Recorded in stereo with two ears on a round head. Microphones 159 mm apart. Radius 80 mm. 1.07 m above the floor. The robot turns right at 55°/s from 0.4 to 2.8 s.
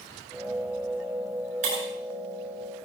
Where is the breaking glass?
40° right (ahead or behind), 8.5 m; by 1.8 s 30° right (ahead or behind), 8.5 m.